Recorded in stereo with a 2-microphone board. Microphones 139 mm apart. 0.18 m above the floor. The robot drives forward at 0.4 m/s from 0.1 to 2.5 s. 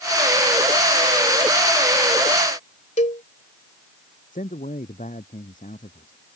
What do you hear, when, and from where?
3.0 s a cowbell: 60° left (ahead or behind)
4.3 s a man speaking: 70° left (ahead or behind)